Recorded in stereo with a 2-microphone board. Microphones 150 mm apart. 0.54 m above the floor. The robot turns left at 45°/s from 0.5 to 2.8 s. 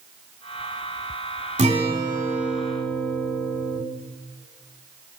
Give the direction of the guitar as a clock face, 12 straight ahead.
4 o'clock.